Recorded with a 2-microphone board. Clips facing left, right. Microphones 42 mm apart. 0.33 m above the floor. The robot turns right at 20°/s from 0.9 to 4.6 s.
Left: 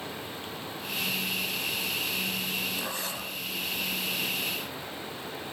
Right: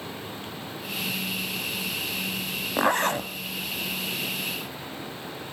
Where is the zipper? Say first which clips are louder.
Right 11 dB; 60° right (ahead or behind), 1.4 m; by 3.3 s 55° right (ahead or behind), 1.4 m.